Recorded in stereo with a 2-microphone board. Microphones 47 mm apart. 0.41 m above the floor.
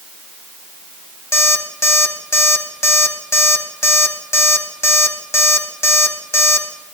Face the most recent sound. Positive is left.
turn(degrees=70)  # may be behind; listen again after turning